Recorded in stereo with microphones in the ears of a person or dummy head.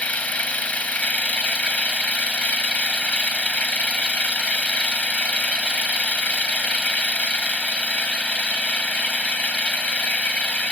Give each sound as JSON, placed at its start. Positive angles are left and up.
{"t": 0.0, "sound": "an engine running", "side_deg": 5}